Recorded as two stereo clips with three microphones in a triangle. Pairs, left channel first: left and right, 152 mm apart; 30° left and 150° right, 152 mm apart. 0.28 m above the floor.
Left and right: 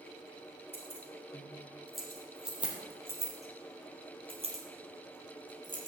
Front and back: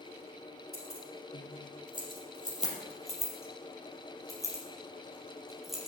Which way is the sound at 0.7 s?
10° left.